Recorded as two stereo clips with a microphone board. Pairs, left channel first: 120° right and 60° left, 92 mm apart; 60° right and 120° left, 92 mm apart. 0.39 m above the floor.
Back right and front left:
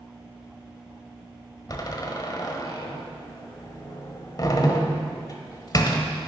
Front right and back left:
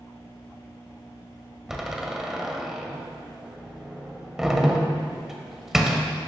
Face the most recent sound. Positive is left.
turn(degrees=-155)